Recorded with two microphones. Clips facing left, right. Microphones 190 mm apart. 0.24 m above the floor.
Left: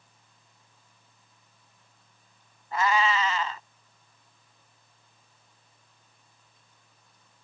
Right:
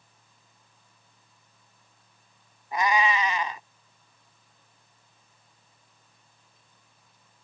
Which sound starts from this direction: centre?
A cat meowing, at 2.7 s.